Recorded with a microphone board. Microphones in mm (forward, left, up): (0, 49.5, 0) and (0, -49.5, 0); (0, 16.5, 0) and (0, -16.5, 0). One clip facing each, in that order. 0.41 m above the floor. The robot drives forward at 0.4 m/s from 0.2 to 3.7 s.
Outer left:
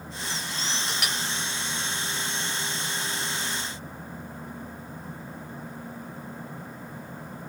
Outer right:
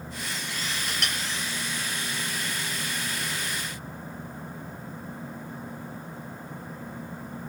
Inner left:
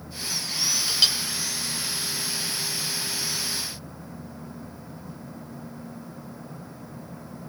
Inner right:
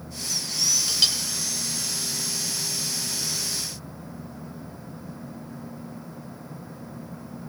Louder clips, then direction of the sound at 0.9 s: Outer left 1 dB, inner left 3 dB; 5° left (ahead or behind).